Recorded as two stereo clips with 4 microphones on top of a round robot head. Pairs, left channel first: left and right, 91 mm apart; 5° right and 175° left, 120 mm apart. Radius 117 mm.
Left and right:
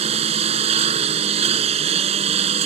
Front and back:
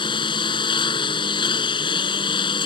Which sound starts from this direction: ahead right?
A lawn mower, at 0.0 s.